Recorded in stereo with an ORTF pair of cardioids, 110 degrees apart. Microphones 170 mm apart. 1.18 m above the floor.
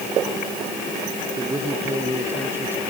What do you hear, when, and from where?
1.4 s a man speaking: 20° right; by 2.8 s 10° right